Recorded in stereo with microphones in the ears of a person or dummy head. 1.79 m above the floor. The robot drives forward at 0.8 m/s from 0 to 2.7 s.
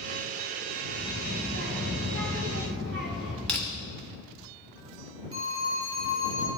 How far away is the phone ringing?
About 1.6 m.